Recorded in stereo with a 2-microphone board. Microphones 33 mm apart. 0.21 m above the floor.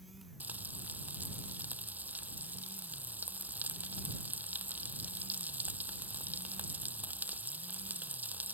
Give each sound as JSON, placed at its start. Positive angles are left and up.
{"t": 0.4, "sound": "frying", "side_deg": -65}